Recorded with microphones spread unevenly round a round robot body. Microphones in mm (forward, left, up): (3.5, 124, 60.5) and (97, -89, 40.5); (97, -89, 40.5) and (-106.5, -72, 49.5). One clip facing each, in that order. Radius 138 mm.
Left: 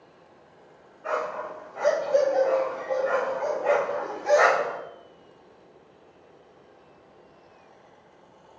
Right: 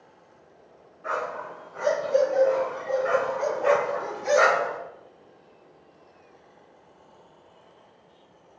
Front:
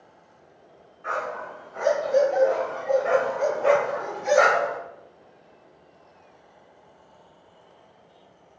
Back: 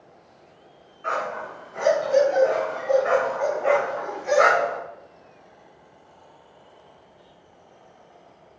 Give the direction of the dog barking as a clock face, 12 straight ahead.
5 o'clock.